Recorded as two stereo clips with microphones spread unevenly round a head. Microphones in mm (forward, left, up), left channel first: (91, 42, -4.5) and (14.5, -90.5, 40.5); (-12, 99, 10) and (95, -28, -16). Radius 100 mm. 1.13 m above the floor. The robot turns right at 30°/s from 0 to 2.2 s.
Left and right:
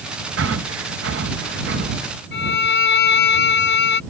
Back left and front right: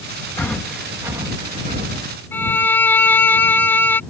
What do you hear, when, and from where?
0.4 s breathing: 150° right; by 2.1 s 95° right
2.3 s a violin: 55° left